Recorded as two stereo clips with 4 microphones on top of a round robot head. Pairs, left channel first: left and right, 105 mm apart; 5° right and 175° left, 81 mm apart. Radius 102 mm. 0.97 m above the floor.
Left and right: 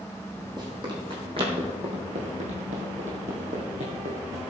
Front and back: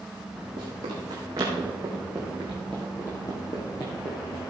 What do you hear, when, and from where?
0.6 s running footsteps: 140° right, 3 m; by 4.4 s 50° right, 3 m